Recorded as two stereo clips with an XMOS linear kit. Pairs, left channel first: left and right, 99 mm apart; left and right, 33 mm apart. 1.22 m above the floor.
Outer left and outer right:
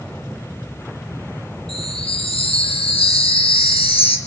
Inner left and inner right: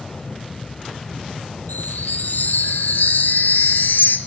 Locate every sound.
1.7 s a chime: 75° left (ahead or behind), 3.5 m